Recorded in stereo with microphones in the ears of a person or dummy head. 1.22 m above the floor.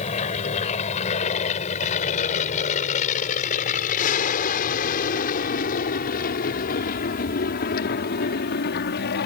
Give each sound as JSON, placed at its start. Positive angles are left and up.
{"t": 0.0, "sound": "an aircraft", "side_deg": 35}